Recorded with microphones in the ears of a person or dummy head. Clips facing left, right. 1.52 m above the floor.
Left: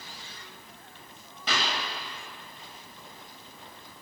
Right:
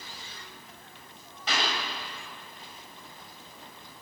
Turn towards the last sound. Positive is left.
turn(degrees=80)